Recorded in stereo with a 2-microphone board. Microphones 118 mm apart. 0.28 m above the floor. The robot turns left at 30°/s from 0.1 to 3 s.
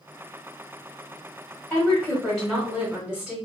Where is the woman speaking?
15° left, 1.3 m; by 3.4 s 25° right, 1.3 m.